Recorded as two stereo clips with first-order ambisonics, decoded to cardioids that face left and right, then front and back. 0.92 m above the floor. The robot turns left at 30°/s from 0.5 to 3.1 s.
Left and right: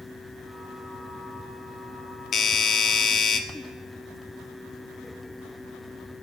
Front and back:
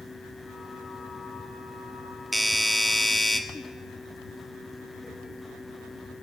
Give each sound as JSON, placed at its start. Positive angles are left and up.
{"t": 2.3, "sound": "a doorbell", "azimuth_deg": 105, "distance_m": 0.8}